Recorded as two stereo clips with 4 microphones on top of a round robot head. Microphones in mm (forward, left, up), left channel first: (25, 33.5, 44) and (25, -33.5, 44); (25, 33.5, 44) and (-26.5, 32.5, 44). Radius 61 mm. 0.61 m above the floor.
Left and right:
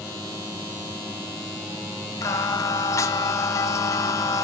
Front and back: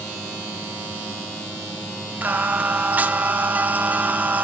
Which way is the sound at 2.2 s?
125° left.